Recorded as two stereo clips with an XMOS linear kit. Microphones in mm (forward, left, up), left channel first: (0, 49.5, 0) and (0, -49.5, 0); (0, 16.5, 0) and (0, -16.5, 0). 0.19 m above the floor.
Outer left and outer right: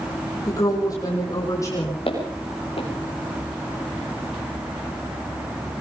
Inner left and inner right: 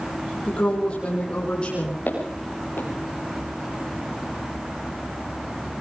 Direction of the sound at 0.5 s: 35° left (ahead or behind).